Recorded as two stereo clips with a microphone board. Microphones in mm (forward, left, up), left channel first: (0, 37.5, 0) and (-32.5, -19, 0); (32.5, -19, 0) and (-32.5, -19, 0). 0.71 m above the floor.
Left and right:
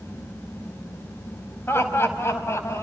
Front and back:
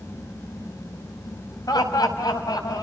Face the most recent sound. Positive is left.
turn(degrees=15)